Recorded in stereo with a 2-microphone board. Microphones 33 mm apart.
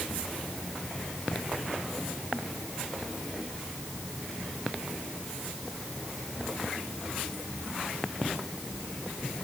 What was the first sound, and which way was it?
Only background noise.